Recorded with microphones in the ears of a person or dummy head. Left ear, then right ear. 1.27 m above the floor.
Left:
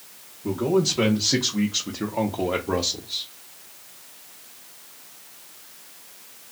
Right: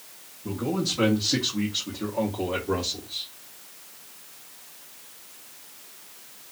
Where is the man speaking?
60° left (ahead or behind), 1.2 m; by 3.3 s 30° left (ahead or behind), 0.9 m.